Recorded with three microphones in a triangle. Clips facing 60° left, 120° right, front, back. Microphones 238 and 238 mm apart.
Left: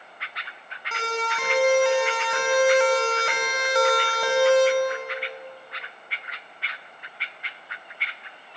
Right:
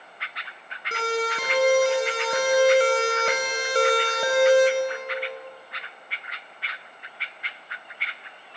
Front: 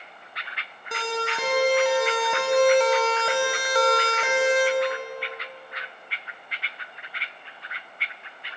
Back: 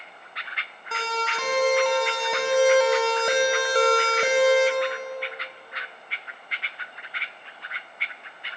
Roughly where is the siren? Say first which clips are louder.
Right 4 dB, front 2 dB; right.